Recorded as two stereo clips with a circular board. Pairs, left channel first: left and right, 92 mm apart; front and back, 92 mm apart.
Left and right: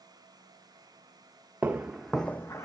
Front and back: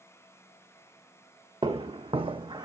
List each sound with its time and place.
1.6 s footsteps: 160° right, 0.7 m; by 2.6 s 145° left, 0.5 m